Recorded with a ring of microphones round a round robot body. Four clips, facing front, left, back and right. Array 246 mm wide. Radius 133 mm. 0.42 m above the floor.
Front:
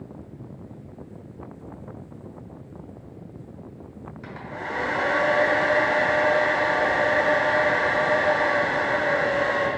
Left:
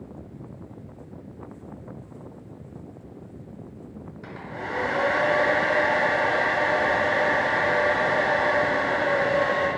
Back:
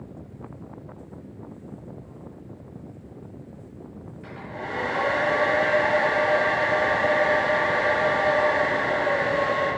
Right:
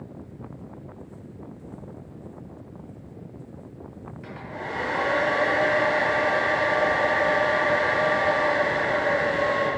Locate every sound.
4.2 s a hair dryer: 25° left, 2.5 m